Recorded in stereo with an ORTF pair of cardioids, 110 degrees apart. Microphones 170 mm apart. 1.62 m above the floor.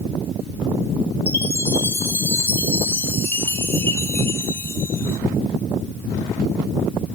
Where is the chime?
15° left, 2.5 m.